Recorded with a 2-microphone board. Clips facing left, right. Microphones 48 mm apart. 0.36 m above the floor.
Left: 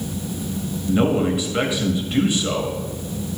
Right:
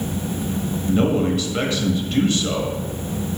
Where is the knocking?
No knocking in this recording.